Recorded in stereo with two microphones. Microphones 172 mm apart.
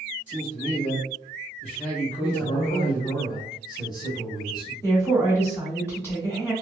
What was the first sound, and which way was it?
A man speaking, 45° left (ahead or behind).